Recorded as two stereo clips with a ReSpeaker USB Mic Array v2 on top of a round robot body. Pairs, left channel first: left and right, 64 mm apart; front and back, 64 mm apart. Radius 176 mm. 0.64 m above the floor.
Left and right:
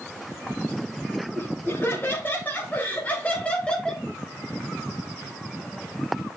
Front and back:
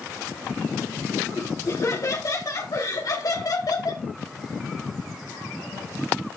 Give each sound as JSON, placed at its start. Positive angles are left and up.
{"t": 1.4, "sound": "laughter", "azimuth_deg": 35, "distance_m": 5.0}